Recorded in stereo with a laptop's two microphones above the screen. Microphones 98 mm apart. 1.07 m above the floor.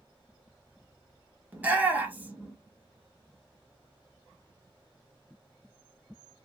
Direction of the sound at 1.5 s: 15° right (ahead or behind).